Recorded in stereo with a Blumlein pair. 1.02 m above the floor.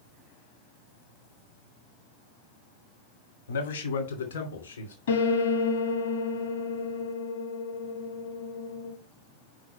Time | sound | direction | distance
3.5 | a man speaking | 65° left | 1.5 m
5.1 | a piano | 65° left | 1.7 m